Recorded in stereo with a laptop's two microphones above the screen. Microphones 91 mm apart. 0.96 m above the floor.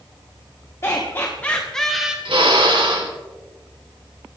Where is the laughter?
30° left (ahead or behind), 1.9 m; by 2.1 s 10° right (ahead or behind), 1.0 m.